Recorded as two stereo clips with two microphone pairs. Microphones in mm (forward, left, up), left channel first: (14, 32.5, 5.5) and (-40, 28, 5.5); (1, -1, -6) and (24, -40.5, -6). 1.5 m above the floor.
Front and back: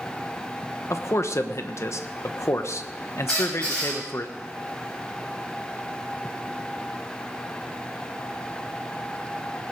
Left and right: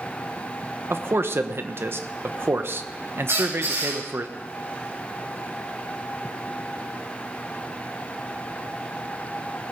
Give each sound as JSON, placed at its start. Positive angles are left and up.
{"t": 0.9, "sound": "a man speaking", "azimuth_deg": -30, "distance_m": 1.2}
{"t": 3.3, "sound": "a squeak", "azimuth_deg": -70, "distance_m": 7.0}